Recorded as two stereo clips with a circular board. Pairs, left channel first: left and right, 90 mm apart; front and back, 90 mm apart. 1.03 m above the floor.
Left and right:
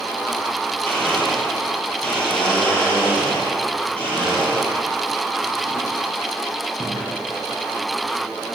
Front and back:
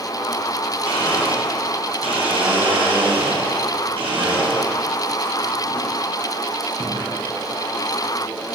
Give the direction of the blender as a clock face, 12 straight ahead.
6 o'clock.